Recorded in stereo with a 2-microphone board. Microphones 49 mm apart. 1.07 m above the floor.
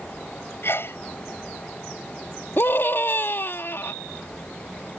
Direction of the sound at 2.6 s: 50° left (ahead or behind).